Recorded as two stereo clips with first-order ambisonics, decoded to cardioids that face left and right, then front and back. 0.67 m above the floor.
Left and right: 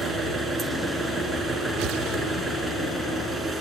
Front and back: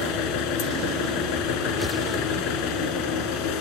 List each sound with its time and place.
0.0 s an engine running: 10° right, 3 m